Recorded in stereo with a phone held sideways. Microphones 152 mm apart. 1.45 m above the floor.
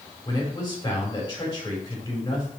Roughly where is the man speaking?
Left.